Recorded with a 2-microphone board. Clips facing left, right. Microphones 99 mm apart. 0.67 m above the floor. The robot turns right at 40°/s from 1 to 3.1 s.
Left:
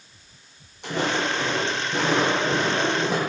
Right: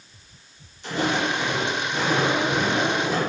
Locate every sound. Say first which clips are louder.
0.8 s footsteps: right 1 dB; 65° left (ahead or behind), 1.6 m; by 3.2 s 55° left (ahead or behind), 1.5 m